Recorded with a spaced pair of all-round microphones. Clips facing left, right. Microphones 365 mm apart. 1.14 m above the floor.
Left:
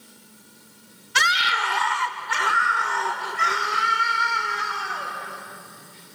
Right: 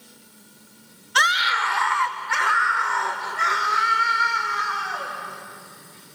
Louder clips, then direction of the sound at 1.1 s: Right 1 dB; 35° left (ahead or behind).